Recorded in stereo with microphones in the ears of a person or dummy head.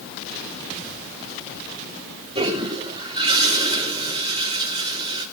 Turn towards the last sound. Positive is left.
turn(degrees=-25)  # may be behind; listen again after turning